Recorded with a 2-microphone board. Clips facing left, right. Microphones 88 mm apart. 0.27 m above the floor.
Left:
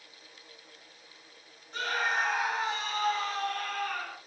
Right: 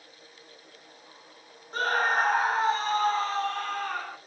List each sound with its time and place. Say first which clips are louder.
1.7 s a scream: right 5 dB; 40° right (ahead or behind), 1.2 m; by 4.2 s 30° right (ahead or behind), 2.5 m